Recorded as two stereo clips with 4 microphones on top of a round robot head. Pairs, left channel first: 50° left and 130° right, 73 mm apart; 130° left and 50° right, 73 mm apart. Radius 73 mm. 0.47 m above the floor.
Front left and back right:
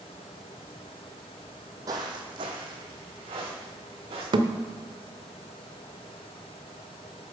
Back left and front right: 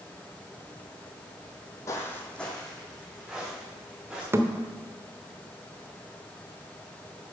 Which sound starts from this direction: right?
A thud, at 4.3 s.